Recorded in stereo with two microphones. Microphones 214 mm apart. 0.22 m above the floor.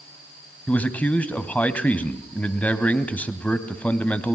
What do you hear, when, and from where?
0.7 s a man speaking: 5° left (ahead or behind), 1.5 m